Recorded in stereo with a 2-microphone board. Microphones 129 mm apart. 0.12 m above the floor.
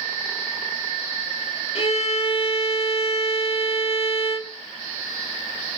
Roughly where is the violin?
Left.